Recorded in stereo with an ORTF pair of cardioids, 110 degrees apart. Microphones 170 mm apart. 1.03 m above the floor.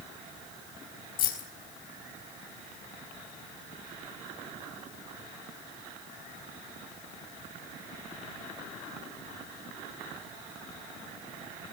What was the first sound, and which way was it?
Keys jangling, 60° left.